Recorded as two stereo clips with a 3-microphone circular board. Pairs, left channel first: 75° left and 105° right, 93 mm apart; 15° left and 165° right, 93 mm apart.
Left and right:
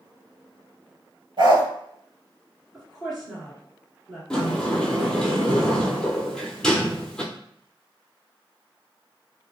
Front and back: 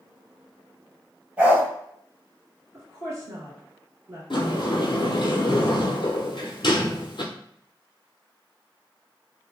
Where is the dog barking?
90° right, 1.1 m.